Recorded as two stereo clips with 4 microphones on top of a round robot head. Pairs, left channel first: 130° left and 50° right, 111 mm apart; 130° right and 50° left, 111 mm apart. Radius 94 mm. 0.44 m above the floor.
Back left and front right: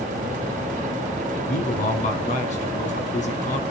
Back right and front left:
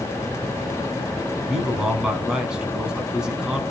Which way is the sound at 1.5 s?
130° left.